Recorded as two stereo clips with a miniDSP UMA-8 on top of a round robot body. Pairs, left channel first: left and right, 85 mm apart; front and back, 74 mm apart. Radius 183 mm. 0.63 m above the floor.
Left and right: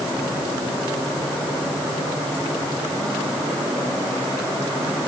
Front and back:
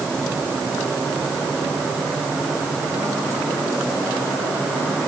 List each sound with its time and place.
Only background noise.